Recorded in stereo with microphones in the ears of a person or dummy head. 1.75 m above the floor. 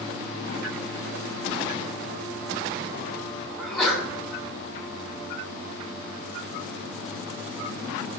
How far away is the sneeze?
About 8.5 m.